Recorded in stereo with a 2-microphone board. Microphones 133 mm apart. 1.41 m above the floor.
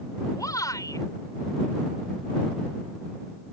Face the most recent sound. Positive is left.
turn(degrees=25)  # may be behind; listen again after turning